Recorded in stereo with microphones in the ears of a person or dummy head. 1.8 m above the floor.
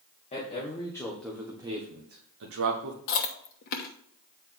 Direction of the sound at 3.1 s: 50° left (ahead or behind).